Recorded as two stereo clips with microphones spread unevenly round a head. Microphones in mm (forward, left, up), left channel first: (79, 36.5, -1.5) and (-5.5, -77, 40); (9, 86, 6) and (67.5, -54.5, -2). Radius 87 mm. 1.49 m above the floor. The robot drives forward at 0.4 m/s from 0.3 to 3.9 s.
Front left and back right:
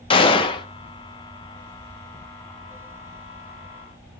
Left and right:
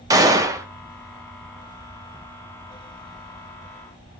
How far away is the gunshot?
About 0.7 m.